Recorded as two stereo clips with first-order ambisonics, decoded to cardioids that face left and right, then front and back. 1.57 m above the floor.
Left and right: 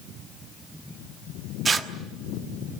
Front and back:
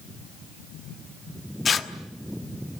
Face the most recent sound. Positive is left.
turn(degrees=-40)